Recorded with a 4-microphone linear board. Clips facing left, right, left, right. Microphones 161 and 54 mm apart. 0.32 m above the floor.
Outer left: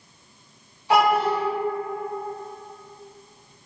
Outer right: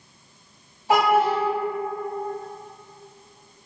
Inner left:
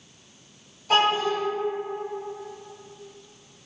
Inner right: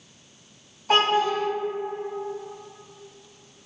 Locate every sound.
0.9 s a child speaking: 45° right (ahead or behind), 1.7 m